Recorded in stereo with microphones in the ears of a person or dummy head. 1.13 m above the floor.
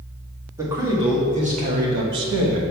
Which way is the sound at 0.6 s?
20° right (ahead or behind).